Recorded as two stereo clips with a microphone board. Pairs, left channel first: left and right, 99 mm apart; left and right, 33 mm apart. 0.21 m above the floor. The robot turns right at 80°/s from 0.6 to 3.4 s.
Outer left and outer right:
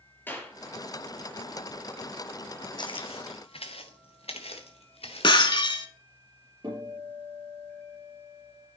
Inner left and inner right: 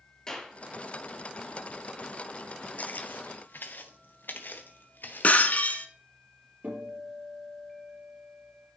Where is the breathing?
No breathing in this recording.